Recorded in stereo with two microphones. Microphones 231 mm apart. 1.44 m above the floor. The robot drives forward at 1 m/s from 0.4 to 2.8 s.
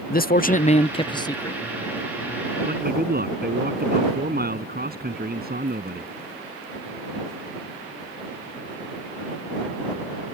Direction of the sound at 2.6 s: 40° right (ahead or behind).